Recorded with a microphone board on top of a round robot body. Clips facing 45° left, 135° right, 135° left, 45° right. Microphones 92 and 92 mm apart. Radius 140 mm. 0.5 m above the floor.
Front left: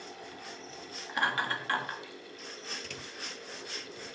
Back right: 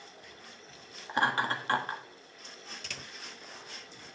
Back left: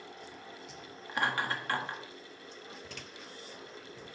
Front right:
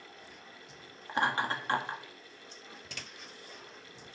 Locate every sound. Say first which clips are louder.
1.1 s laughter: back right 2 dB, front right 2 dB; 90° right, 1.5 m